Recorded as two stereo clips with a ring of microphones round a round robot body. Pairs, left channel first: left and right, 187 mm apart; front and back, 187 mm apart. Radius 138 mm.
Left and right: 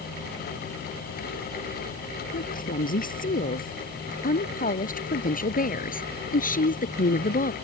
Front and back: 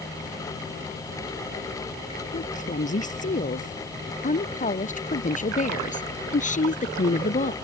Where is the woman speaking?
50° left; by 7.5 s 45° left.